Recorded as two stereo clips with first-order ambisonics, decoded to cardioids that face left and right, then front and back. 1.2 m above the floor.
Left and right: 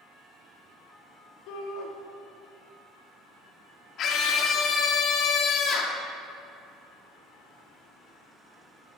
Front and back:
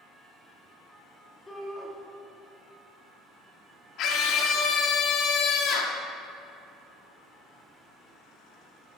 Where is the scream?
40° left, 2.5 m.